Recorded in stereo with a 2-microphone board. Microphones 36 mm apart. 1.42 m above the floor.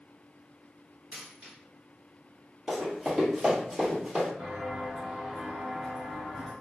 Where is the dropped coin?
35° right (ahead or behind), 1.6 m.